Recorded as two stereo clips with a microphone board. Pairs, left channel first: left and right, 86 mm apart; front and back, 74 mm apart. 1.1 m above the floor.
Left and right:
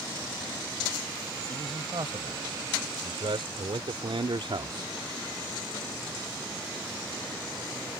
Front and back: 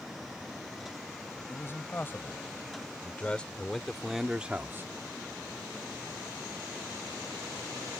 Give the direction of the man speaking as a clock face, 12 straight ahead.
2 o'clock.